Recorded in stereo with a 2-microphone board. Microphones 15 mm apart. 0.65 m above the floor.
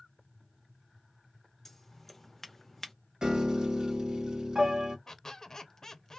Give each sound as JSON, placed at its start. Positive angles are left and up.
{"t": 1.6, "sound": "scissors", "side_deg": 20, "distance_m": 0.6}
{"t": 3.2, "sound": "a piano", "side_deg": -65, "distance_m": 0.7}
{"t": 5.1, "sound": "a squeak", "side_deg": 35, "distance_m": 0.5}